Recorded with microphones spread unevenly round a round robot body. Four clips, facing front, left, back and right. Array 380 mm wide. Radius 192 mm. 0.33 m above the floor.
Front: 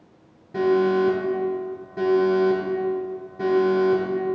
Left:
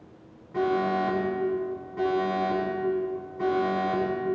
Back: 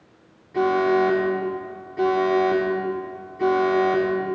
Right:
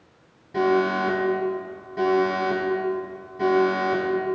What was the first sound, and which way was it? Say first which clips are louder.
An alarm: right 4 dB, even; 15° right.